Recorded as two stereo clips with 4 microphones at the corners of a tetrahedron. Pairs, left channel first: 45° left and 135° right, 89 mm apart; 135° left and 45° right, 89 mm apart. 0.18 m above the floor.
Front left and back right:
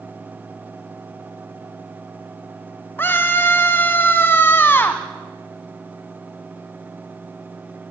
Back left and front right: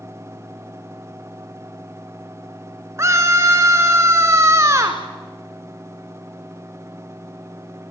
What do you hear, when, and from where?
3.0 s a scream: 10° right, 1.5 m